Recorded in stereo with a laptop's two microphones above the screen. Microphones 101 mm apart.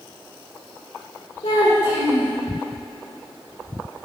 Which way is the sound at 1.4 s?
60° left (ahead or behind).